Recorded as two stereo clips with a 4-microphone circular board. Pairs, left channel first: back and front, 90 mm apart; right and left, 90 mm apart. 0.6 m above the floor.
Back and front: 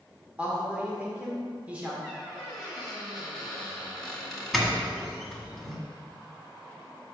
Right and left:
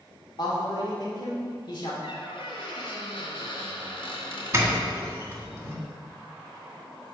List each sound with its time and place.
0.4 s a man speaking: 75° right, 1.8 m
2.0 s a squeak: 90° right, 2 m
4.5 s a doorbell: 80° left, 1.7 m